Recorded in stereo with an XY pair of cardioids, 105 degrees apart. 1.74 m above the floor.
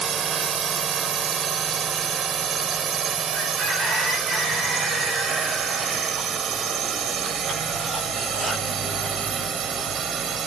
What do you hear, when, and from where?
0.0 s a drone: 50° right; by 10.5 s 55° right